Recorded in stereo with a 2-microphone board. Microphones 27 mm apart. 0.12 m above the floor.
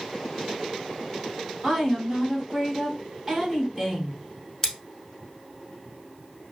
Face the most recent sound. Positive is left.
turn(degrees=20)  # may be behind; listen again after turning